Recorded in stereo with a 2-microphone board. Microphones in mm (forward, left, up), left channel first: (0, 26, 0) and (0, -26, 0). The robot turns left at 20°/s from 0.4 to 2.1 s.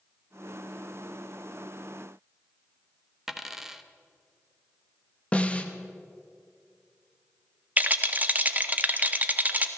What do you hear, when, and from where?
3.3 s a dropped coin: 5° right (ahead or behind), 0.8 m
5.3 s a snare drum: 25° left (ahead or behind), 0.9 m
7.8 s a rattle: 30° right (ahead or behind), 0.7 m